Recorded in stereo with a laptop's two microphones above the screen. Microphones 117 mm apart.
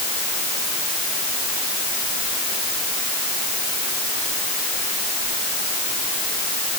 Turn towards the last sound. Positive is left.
No sound to turn to.